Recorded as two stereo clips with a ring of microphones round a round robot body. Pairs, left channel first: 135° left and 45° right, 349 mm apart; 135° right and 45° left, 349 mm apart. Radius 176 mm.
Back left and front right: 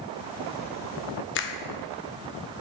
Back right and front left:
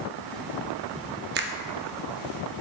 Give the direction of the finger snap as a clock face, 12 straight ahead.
9 o'clock.